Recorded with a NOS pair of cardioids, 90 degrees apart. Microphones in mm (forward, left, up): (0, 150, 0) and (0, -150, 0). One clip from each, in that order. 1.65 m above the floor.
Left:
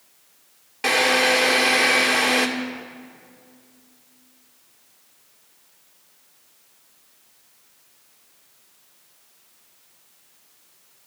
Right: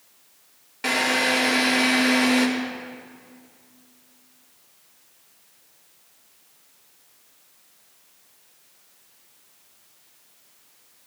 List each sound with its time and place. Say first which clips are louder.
0.8 s a drill: left 3 dB; 20° left, 2.5 m